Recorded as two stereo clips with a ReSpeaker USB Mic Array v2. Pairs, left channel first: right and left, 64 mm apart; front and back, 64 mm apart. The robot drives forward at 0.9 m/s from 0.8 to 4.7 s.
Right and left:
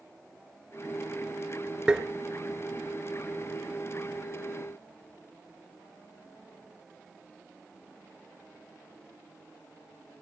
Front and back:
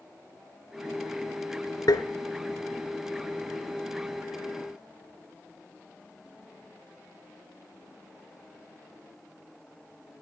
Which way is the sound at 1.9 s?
15° left.